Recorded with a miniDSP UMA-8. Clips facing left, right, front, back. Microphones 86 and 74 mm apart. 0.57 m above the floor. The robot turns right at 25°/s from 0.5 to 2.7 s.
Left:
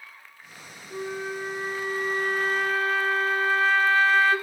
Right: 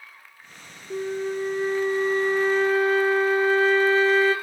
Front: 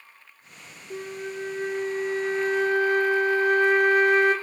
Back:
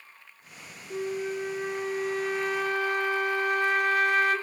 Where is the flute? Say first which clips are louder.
Right 5 dB, back 3 dB; 80° right, 1.0 m; by 4.3 s 35° right, 1.0 m.